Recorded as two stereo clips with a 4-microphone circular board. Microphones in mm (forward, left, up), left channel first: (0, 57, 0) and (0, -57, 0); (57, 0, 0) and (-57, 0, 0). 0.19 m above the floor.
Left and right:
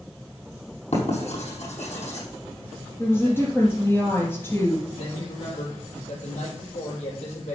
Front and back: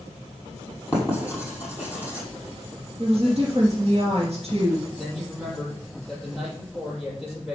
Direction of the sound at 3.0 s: 160° left.